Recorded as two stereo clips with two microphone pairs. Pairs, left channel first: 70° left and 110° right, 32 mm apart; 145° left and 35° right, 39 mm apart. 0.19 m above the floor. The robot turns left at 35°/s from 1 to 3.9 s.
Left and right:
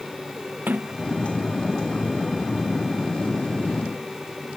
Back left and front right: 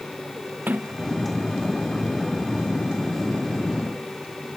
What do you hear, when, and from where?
0.7 s a sliding door: 80° right; by 1.7 s 105° right